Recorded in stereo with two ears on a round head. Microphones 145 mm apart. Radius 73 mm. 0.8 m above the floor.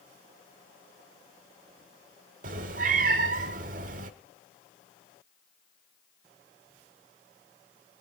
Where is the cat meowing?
55° right (ahead or behind), 1.0 m.